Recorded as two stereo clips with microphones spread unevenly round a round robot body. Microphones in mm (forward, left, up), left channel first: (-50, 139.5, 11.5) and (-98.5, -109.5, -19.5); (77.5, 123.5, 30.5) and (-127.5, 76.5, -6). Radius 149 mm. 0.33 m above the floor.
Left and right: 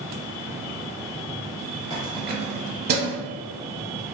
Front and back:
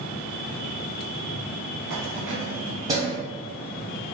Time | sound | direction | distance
1.9 | keys jangling | 175° right | 1.6 m